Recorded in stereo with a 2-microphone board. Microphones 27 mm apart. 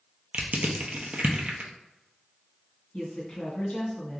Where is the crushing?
60° right (ahead or behind), 0.6 m.